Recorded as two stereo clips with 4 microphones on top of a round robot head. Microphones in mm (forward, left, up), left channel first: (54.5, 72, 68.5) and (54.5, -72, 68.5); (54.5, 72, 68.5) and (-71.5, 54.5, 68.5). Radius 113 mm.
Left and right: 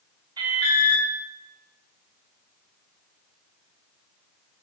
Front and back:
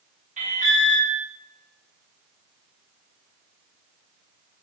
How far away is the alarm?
About 6 m.